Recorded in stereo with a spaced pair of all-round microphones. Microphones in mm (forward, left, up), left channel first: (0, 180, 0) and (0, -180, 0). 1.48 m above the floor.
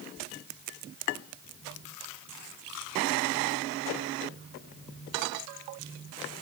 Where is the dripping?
I don't hear dripping.